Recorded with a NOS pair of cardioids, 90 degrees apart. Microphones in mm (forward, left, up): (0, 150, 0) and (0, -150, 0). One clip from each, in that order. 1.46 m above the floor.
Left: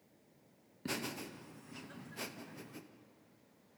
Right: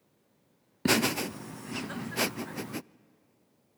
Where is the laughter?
70° right, 0.5 m.